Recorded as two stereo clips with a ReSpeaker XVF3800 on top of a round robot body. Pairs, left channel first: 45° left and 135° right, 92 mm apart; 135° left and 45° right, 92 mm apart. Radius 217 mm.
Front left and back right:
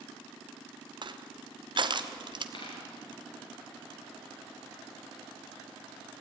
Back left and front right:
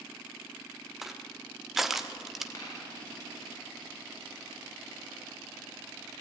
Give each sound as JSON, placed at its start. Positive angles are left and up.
{"t": 1.0, "sound": "crushing", "azimuth_deg": -130, "distance_m": 1.5}
{"t": 2.5, "sound": "a dropped coin", "azimuth_deg": 80, "distance_m": 4.0}